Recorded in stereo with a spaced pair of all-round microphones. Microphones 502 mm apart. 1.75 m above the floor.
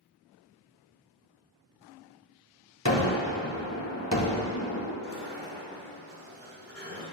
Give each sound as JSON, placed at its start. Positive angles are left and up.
{"t": 2.9, "sound": "a gunshot", "side_deg": 30, "distance_m": 1.8}
{"t": 5.0, "sound": "a sliding door", "side_deg": -20, "distance_m": 4.0}